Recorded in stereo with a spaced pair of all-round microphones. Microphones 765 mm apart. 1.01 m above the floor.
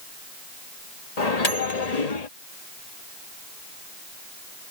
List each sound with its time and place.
1.2 s a microwave: 55° left (ahead or behind)